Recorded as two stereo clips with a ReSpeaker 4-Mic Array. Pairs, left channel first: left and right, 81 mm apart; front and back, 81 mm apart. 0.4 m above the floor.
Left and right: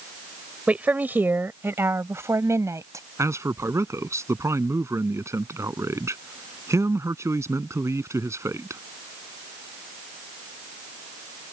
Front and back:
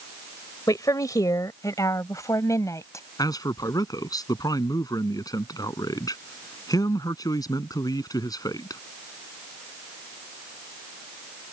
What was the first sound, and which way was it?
A woman speaking, 20° right.